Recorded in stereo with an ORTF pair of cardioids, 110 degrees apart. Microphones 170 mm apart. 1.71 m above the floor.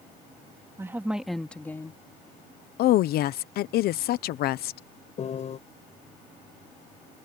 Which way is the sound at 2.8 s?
65° left.